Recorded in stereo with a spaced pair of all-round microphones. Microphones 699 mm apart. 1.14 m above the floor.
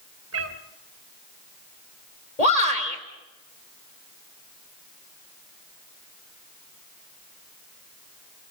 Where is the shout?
60° left (ahead or behind), 3.5 m.